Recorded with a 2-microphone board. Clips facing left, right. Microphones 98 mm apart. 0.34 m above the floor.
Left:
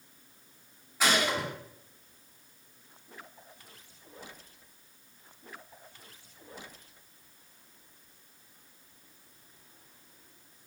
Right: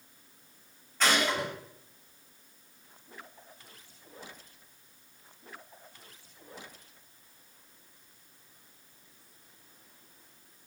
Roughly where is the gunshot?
Centre.